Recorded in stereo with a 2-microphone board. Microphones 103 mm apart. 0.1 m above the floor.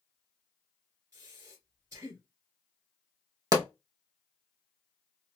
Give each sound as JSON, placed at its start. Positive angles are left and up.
{"t": 1.1, "sound": "breathing", "side_deg": -30, "distance_m": 1.8}
{"t": 3.5, "sound": "a pop", "side_deg": -35, "distance_m": 0.5}